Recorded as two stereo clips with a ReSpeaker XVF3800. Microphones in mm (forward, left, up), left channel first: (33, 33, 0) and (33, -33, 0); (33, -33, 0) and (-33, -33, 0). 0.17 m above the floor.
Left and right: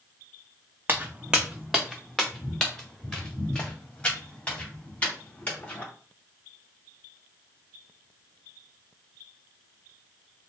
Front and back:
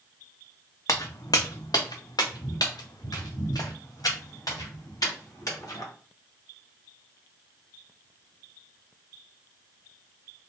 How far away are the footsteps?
About 0.7 m.